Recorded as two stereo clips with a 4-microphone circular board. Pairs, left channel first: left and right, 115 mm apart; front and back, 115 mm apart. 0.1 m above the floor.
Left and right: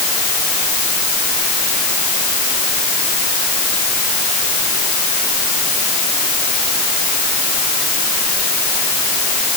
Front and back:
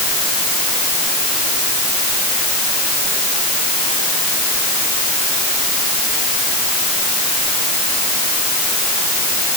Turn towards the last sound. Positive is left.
No sound to turn to.